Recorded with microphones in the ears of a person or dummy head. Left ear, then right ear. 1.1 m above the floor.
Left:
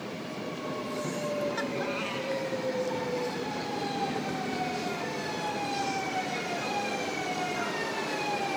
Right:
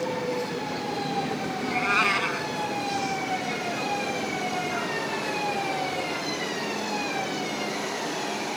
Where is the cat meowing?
60° right (ahead or behind).